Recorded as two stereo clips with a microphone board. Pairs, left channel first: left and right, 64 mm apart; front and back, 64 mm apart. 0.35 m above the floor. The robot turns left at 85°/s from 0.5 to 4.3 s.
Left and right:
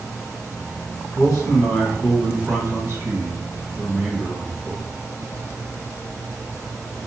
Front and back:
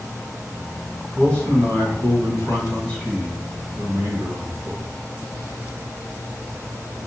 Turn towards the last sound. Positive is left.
turn(degrees=175)